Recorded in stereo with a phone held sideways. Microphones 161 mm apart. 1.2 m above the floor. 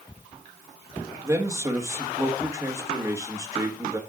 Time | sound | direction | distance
1.2 | a man speaking | 20° right (ahead or behind) | 1.5 m